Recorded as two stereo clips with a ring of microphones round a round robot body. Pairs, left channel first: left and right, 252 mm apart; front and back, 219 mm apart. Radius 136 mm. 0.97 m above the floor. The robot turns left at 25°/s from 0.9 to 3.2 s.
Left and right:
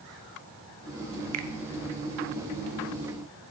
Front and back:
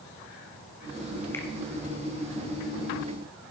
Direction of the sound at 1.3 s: 80° right.